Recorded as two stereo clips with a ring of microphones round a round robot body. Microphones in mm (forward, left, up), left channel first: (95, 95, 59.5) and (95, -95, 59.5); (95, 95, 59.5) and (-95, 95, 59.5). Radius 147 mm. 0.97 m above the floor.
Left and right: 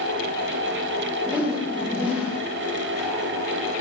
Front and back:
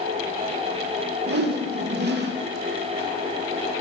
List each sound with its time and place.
1.3 s a whoosh: 175° right, 1.1 m